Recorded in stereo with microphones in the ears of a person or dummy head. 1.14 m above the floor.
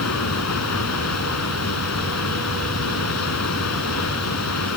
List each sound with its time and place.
0.0 s running water: 85° left